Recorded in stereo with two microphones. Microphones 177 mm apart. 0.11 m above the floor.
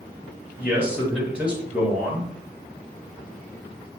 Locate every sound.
0.6 s a man speaking: 5° right (ahead or behind), 2 m